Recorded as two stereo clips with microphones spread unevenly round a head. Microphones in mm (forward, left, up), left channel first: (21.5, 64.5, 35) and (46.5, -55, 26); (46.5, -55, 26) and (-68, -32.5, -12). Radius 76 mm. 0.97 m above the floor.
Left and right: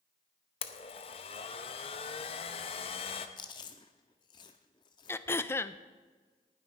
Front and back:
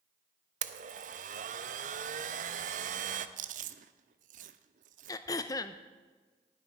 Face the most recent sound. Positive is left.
turn(degrees=55)